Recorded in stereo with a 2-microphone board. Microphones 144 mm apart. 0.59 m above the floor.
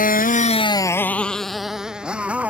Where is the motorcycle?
80° left; by 2.5 s 10° right (ahead or behind).